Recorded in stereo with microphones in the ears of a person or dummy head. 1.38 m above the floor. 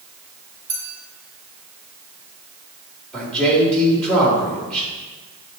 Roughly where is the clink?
Centre.